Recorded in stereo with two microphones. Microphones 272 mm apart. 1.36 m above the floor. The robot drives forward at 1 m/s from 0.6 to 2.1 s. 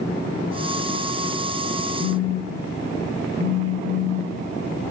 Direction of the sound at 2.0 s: 85° right.